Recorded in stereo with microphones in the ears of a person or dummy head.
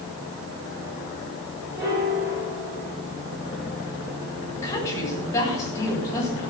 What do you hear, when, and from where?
1.8 s a piano: 25° right (ahead or behind), 9 m
4.6 s a woman speaking: 10° left (ahead or behind), 8 m